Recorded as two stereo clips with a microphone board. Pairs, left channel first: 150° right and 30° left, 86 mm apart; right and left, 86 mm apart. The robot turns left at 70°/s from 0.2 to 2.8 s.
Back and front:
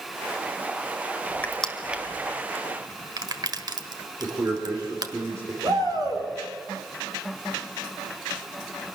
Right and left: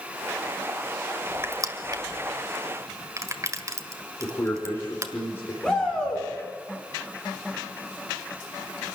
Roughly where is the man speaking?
Ahead right.